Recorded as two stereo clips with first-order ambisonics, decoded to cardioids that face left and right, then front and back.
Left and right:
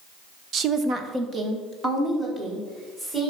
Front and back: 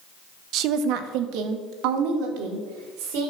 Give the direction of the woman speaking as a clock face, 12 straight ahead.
5 o'clock.